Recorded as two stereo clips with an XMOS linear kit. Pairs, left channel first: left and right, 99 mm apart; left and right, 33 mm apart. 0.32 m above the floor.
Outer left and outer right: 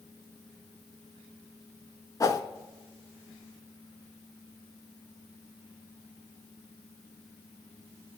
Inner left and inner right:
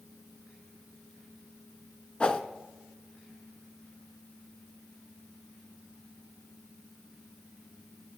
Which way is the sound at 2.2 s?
35° left (ahead or behind).